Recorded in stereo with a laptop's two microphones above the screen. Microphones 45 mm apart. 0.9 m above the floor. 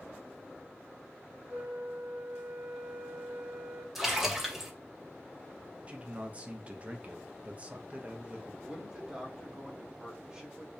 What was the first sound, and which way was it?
A flute, 50° right (ahead or behind).